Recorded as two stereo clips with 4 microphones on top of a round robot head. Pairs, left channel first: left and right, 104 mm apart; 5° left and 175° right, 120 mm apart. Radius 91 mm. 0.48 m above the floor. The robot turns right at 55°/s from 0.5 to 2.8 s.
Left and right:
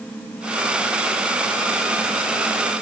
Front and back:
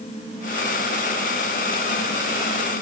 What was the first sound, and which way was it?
Only background noise.